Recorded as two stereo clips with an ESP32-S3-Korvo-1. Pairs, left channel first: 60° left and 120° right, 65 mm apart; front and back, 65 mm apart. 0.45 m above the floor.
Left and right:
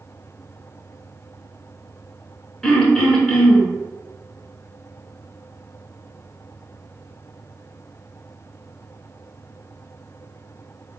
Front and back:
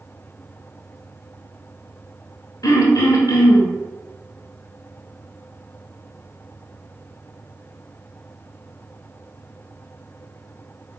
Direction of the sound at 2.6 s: 20° right.